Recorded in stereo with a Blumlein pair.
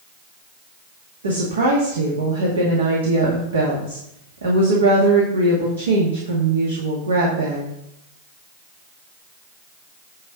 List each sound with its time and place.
1.2 s a woman speaking: 70° right, 2 m